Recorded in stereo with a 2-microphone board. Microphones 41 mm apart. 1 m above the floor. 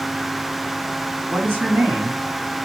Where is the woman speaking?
70° right (ahead or behind), 1.6 m.